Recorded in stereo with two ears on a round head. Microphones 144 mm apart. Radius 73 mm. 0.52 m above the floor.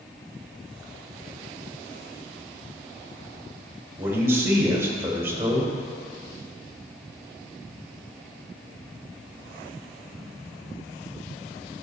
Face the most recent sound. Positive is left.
turn(degrees=-15)  # may be behind; listen again after turning